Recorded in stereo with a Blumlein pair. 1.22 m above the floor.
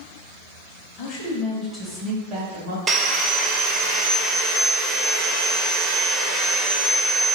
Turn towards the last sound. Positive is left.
turn(degrees=-25)